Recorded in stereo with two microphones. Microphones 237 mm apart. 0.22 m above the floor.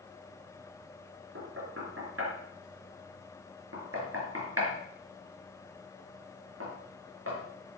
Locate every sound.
1.4 s knocking: 70° right (ahead or behind), 3.5 m